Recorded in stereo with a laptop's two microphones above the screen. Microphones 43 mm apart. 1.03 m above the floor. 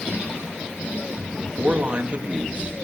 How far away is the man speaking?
About 1.8 m.